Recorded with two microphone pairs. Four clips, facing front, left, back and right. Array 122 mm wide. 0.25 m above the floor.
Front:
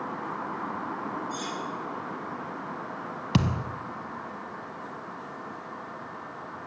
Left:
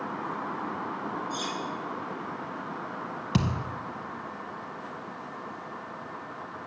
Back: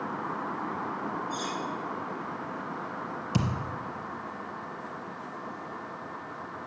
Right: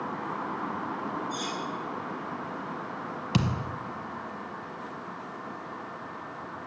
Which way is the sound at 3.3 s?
5° right.